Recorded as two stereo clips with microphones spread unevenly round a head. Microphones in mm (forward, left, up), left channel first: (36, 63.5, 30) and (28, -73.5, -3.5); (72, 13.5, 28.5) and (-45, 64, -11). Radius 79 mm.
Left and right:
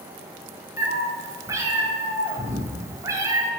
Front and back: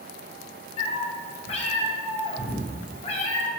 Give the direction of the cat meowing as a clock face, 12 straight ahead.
1 o'clock.